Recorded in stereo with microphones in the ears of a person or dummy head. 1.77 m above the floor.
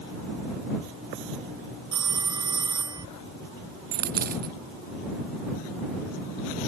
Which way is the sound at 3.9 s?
50° right (ahead or behind).